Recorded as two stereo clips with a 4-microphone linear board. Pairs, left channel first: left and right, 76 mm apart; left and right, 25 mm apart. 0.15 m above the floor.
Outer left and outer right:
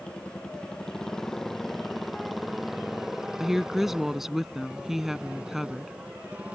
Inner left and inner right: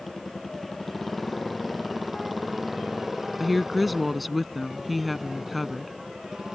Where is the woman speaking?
5° right (ahead or behind).